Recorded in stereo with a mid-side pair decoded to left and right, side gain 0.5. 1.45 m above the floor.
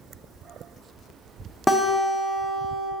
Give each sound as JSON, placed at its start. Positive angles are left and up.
{"t": 1.7, "sound": "a guitar", "azimuth_deg": 15, "distance_m": 1.1}